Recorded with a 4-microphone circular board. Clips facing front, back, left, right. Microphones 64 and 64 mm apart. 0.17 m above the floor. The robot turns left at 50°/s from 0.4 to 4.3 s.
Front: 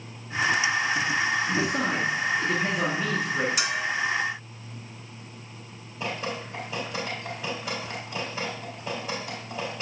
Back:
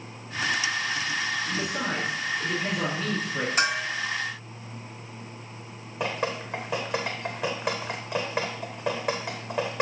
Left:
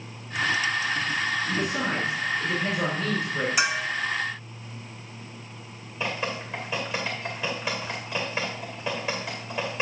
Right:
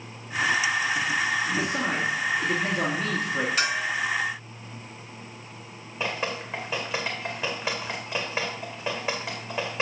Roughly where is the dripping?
Behind.